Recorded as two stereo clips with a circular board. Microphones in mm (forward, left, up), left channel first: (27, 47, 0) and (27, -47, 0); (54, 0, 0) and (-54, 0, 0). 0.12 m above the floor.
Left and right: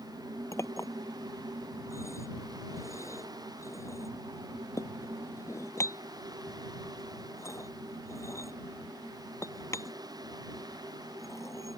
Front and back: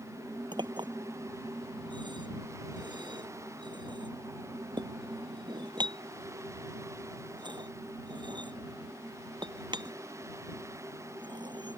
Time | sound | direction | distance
0.5 | a clink | 145° left | ?